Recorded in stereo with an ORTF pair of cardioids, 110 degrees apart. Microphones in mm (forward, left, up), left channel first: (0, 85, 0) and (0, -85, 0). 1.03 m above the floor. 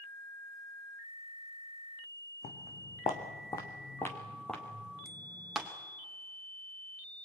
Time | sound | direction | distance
2.4 | footsteps | 45° left | 3.5 m
5.0 | a bicycle bell | straight ahead | 2.5 m